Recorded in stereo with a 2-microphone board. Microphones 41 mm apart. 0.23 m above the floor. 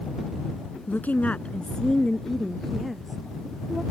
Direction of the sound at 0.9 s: 45° left (ahead or behind).